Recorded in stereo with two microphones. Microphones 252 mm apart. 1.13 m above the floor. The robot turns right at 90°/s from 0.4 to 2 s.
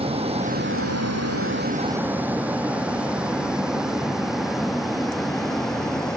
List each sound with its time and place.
0.0 s a vehicle: 25° right (ahead or behind); by 6.2 s 5° left (ahead or behind)